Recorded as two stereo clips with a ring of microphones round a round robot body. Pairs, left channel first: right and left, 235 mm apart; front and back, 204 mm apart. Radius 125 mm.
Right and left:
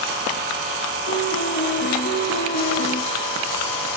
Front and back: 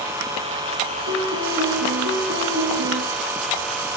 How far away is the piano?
About 1.7 m.